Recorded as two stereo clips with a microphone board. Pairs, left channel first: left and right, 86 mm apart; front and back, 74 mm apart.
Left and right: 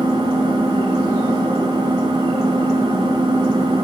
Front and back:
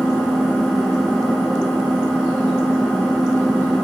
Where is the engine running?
85° right, 7 m.